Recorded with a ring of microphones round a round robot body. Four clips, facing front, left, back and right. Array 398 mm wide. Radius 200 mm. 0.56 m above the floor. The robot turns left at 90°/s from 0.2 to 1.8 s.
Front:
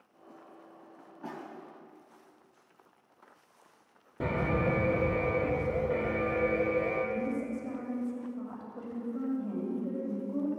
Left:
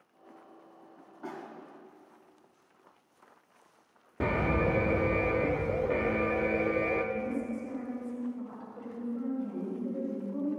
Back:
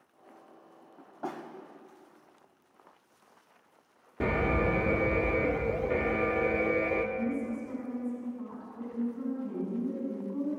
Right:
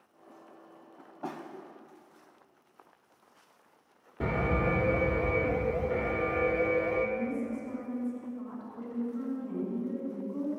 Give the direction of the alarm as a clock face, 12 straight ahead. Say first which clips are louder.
Left 1 dB, back 2 dB; 8 o'clock.